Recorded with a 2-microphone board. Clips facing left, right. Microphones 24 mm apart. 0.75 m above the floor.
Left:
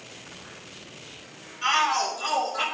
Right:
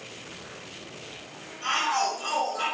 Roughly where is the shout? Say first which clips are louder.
Left 3 dB; left.